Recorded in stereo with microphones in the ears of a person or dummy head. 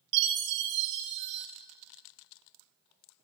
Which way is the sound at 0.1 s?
60° right (ahead or behind).